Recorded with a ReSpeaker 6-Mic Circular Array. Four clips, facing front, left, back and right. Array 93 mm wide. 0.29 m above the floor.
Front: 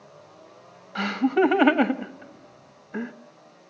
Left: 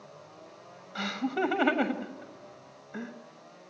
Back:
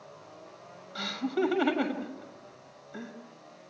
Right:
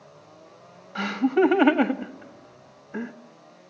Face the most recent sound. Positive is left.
turn(degrees=-25)